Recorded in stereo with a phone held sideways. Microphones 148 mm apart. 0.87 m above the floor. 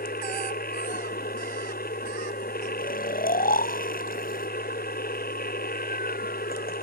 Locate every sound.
0.0 s a machine running: 90° left
2.8 s snoring: 80° left